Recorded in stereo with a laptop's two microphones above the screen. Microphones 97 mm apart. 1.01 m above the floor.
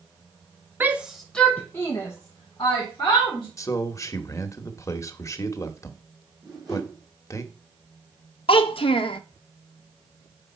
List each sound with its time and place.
0.8 s a shout: 20° right (ahead or behind), 0.7 m; by 3.5 s 45° left (ahead or behind), 1.9 m
3.6 s a man speaking: 35° left (ahead or behind), 1.0 m
6.4 s a whoosh: 5° right (ahead or behind), 2.5 m
8.5 s a child speaking: 65° left (ahead or behind), 0.7 m